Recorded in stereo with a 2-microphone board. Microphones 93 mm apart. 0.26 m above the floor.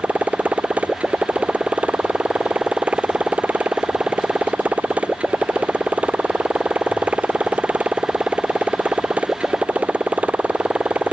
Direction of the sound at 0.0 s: 15° right (ahead or behind).